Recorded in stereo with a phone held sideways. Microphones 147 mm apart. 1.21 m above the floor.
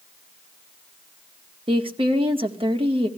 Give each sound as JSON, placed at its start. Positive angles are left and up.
{"t": 1.7, "sound": "a woman speaking", "side_deg": -35, "distance_m": 1.9}